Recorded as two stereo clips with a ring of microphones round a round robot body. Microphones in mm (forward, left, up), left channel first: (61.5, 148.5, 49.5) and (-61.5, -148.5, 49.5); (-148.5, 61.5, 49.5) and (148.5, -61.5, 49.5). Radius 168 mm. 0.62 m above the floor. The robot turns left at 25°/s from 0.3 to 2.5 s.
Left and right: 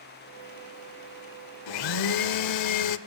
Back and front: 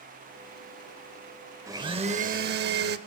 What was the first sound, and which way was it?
A blender, 55° left.